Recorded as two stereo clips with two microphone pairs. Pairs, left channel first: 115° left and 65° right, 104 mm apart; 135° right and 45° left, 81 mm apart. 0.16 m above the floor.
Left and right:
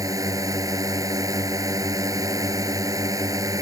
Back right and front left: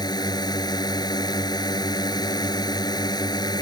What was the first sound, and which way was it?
A drone, 115° right.